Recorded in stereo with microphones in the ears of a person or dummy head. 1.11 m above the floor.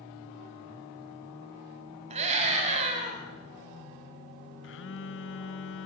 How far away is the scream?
About 7 m.